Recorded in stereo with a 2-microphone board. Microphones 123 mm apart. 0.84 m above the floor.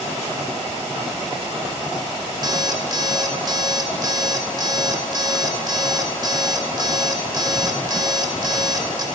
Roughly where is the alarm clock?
Right.